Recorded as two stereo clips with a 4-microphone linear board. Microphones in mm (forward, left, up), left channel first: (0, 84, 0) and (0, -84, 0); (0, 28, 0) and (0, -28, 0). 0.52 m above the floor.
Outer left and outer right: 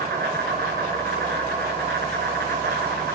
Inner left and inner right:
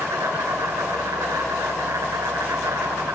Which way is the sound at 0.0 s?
85° right.